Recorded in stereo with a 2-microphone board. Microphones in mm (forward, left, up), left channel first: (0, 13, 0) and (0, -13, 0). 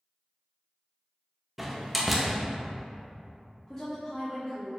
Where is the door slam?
5° right (ahead or behind), 0.6 m.